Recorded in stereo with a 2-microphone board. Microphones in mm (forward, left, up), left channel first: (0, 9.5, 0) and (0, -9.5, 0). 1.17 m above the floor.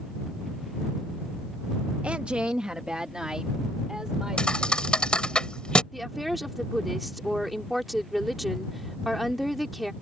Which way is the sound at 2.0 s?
85° right.